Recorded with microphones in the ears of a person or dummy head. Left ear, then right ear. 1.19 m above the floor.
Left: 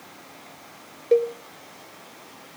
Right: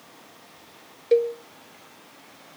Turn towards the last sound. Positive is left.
turn(degrees=-15)  # may be behind; listen again after turning